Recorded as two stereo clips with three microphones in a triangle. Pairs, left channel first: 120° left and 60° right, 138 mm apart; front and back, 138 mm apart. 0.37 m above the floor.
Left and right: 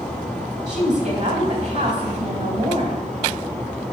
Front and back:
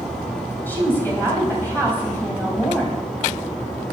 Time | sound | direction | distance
0.7 | a woman speaking | 75° right | 3 m